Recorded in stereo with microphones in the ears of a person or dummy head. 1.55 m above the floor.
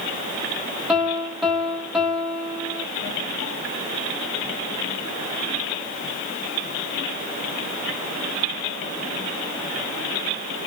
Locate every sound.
0.9 s a piano: centre (ahead or behind), 0.9 m